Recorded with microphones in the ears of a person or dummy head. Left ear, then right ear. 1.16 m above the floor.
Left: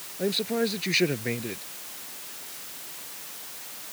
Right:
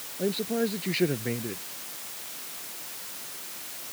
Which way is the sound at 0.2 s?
25° left (ahead or behind).